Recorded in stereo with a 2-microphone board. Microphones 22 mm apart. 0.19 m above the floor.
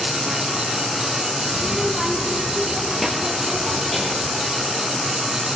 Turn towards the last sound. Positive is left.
turn(degrees=0)  # may be behind; listen again after turning